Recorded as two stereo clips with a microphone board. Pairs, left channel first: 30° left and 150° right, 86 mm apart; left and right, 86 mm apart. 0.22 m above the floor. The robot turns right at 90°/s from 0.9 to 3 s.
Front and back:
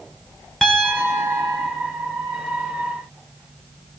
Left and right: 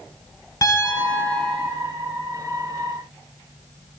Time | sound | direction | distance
0.6 | a piano | 115° left | 1.9 m